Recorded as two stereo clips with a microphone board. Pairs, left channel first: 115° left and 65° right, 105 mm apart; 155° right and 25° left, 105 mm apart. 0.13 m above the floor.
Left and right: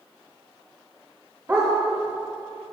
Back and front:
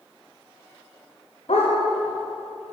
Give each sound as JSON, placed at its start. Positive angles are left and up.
{"t": 1.5, "sound": "a dog barking", "azimuth_deg": -135, "distance_m": 9.0}